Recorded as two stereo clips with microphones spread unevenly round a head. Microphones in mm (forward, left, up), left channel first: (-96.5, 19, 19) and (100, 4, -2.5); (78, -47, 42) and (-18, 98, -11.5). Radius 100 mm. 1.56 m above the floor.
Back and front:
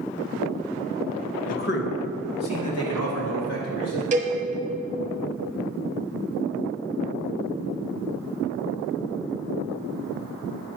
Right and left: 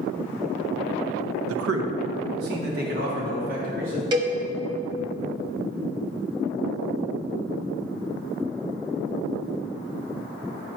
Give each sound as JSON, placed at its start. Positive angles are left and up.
{"t": 1.5, "sound": "a man speaking", "azimuth_deg": 140, "distance_m": 0.8}
{"t": 4.1, "sound": "a cowbell", "azimuth_deg": 50, "distance_m": 1.3}